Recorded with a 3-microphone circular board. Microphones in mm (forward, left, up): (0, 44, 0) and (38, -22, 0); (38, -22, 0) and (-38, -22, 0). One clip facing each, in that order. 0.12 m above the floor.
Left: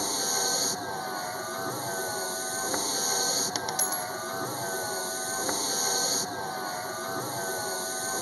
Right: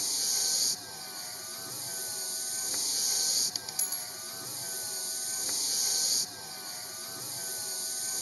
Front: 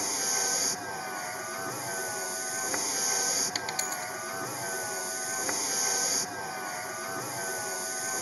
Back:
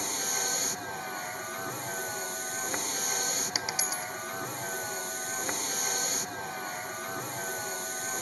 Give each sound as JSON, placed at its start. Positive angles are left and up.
{"t": 0.0, "sound": "a vehicle", "azimuth_deg": 85}
{"t": 3.5, "sound": "a dropped coin", "azimuth_deg": 100}